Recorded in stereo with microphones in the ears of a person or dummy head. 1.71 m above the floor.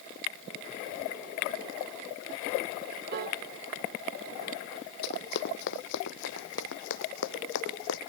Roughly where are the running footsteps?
Left.